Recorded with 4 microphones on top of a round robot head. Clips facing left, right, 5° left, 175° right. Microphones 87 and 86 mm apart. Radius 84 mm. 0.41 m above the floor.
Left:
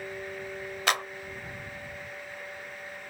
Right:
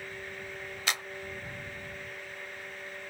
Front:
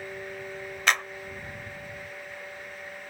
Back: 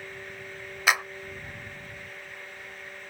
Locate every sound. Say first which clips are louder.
0.9 s a clap: left 7 dB, back 1 dB; 105° left